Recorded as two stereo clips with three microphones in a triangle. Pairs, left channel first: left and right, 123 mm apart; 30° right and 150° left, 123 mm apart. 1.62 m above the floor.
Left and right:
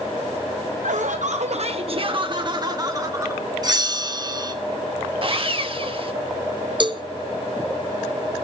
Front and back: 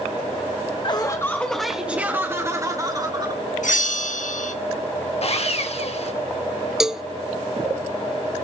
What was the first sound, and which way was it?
Laughter, 80° right.